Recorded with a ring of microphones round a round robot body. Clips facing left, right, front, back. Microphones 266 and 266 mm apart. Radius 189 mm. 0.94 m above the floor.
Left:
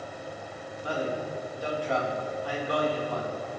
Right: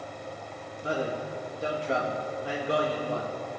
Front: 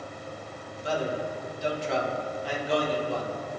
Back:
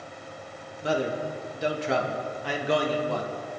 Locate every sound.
0.8 s a man speaking: 160° right, 1.3 m